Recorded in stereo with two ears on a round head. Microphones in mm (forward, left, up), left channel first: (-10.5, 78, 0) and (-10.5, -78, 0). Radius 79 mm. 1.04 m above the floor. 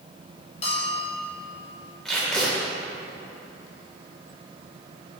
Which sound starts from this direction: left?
A bell, at 0.6 s.